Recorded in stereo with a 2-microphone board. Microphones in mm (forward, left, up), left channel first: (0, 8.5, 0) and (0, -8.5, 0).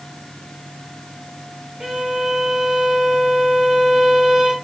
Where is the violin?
40° right (ahead or behind), 0.9 m.